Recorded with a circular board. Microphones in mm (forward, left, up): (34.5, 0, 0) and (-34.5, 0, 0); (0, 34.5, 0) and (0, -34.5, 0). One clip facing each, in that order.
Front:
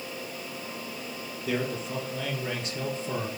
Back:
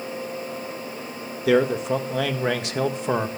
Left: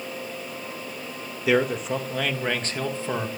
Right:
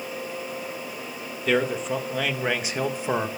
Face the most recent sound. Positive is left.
turn(degrees=-155)